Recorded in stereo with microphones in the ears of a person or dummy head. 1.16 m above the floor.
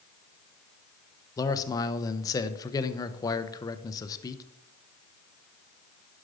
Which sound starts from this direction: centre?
A man speaking, at 1.4 s.